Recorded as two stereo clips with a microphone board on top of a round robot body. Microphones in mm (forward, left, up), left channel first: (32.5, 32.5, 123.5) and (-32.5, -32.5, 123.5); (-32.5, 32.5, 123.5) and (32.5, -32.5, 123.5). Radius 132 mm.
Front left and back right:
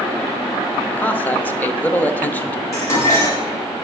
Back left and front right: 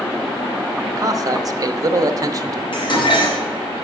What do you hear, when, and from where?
0.9 s a man speaking: 20° right, 0.9 m
2.7 s dishes clattering: 105° left, 2.5 m